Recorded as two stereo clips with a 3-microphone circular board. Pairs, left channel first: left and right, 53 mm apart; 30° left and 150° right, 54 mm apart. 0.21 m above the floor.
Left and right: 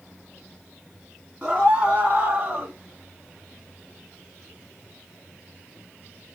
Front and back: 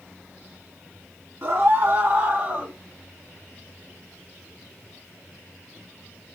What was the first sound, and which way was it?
A scream, 155° right.